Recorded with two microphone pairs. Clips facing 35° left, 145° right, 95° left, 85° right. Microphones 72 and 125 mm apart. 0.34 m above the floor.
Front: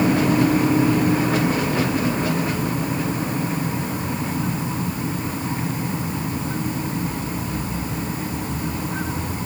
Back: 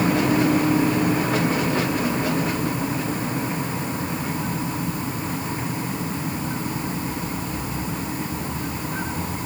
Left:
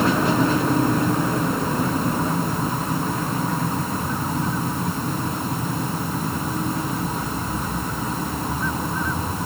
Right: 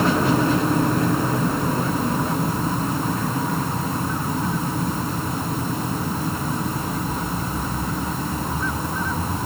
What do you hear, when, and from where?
Only background noise.